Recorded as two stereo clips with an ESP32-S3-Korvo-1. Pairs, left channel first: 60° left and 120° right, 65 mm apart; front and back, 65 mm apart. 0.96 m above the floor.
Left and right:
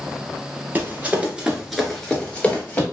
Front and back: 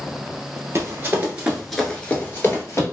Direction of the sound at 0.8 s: 165° right.